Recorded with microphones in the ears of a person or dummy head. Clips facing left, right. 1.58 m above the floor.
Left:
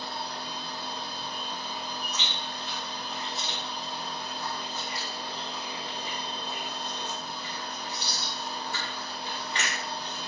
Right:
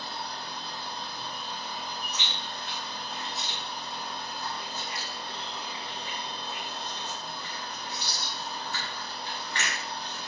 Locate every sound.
0.0 s a machine running: 15° left (ahead or behind), 1.7 m
2.1 s chewing: 20° left (ahead or behind), 1.5 m